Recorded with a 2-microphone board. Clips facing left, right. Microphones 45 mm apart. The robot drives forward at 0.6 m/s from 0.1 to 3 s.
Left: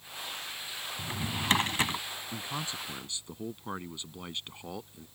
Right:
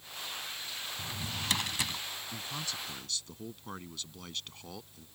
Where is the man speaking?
25° left (ahead or behind); by 5.1 s 20° left (ahead or behind).